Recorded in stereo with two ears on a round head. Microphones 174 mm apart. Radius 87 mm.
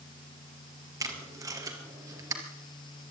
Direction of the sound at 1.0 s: 20° right (ahead or behind).